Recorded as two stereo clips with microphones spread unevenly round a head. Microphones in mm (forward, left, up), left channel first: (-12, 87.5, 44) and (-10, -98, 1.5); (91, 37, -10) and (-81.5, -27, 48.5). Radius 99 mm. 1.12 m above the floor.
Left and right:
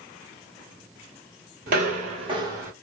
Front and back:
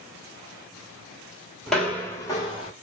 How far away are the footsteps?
About 1.2 m.